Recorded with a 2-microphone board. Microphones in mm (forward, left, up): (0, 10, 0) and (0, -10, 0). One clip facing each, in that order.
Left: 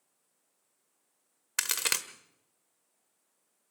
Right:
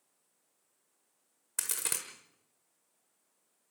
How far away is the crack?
About 1.3 m.